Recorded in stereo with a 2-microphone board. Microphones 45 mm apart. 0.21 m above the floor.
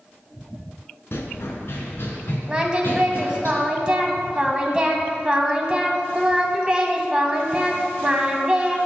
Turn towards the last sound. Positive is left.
turn(degrees=-20)  # may be behind; listen again after turning